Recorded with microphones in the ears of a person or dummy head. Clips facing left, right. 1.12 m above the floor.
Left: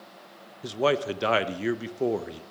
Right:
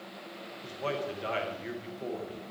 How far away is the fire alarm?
No fire alarm in this recording.